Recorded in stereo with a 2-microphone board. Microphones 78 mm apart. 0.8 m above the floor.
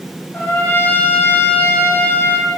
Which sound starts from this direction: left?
A trumpet, at 0.3 s.